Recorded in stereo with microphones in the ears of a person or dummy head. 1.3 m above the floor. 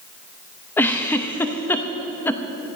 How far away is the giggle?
About 0.8 m.